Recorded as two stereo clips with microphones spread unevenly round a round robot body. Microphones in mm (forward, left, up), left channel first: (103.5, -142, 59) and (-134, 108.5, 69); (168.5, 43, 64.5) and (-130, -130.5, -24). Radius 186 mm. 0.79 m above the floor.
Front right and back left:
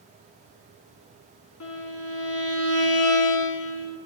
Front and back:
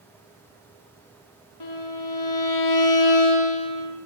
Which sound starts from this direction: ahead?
A violin, at 1.6 s.